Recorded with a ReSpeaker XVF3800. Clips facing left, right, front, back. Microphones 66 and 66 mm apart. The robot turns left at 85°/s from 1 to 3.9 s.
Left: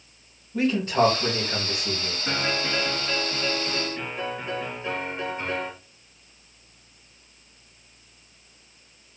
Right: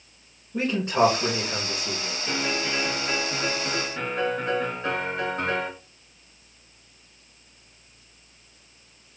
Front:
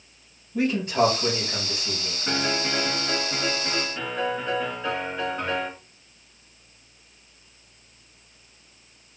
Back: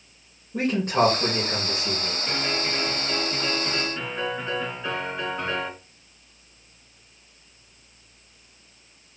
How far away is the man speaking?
About 2.5 m.